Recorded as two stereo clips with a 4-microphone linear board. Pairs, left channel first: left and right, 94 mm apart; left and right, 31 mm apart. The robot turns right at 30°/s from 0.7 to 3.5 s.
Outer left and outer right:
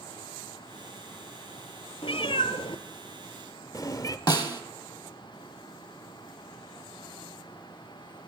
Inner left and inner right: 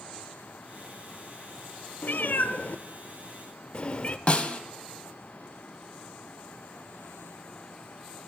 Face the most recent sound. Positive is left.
turn(degrees=45)  # may be behind; listen again after turning